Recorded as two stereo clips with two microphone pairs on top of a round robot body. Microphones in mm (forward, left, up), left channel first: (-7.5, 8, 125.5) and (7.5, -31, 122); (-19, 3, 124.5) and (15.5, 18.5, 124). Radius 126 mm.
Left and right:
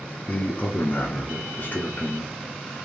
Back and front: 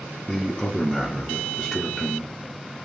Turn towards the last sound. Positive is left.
turn(degrees=130)